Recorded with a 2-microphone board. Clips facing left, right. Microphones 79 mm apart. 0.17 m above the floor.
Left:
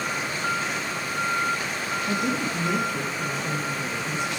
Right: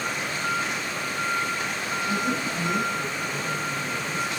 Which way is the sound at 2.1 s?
70° left (ahead or behind).